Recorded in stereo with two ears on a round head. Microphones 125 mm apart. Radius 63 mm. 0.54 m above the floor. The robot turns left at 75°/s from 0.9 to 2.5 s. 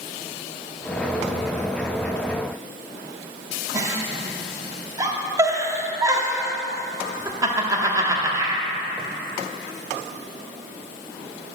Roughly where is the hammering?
I don't hear hammering.